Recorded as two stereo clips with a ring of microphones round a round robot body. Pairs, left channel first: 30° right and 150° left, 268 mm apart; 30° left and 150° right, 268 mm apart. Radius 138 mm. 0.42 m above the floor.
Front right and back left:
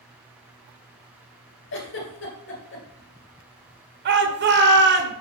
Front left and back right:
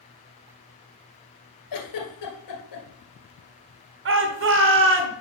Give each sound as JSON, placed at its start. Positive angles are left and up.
{"t": 1.7, "sound": "a giggle", "azimuth_deg": 20, "distance_m": 2.5}
{"t": 4.0, "sound": "a shout", "azimuth_deg": -175, "distance_m": 1.5}